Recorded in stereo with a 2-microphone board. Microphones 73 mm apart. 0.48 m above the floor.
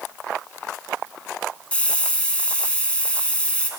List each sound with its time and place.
1.7 s a hiss: 15° left (ahead or behind), 0.6 m